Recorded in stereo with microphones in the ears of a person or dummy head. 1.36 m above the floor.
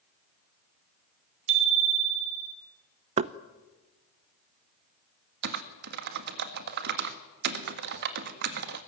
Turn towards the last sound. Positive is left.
turn(degrees=-60)  # may be behind; listen again after turning